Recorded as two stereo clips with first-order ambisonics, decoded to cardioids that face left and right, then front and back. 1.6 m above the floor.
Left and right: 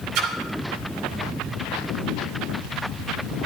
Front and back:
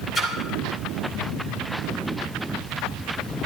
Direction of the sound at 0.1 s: 65° right.